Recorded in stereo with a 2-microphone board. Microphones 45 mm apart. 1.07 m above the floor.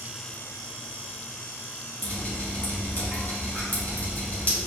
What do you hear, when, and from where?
2.0 s dripping: 35° left (ahead or behind), 2.5 m